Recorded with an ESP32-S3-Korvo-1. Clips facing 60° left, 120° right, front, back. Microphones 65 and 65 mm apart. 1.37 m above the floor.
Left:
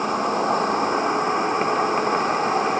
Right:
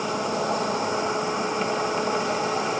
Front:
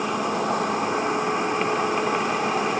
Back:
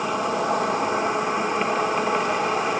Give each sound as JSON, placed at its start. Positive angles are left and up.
{"t": 0.0, "sound": "an insect", "azimuth_deg": 90, "distance_m": 1.4}